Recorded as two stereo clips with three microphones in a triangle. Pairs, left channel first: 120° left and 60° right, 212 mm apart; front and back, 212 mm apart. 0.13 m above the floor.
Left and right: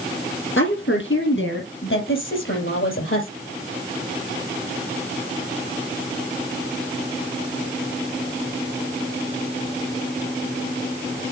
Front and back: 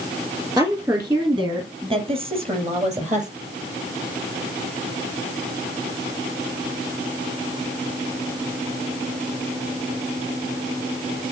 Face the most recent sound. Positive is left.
turn(degrees=125)